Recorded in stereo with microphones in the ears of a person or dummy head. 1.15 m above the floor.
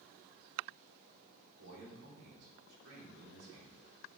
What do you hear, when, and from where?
1.6 s a man speaking: 80° right, 3.5 m